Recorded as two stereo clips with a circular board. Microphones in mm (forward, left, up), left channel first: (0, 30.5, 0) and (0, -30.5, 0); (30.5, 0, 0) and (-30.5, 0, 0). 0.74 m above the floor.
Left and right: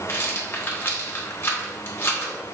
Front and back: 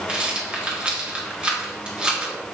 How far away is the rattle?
About 1.1 m.